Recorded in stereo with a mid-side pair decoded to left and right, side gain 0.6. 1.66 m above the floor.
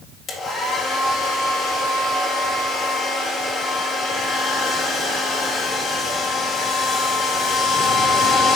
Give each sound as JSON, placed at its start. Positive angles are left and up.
{"t": 0.3, "sound": "a hair dryer", "azimuth_deg": 45, "distance_m": 1.8}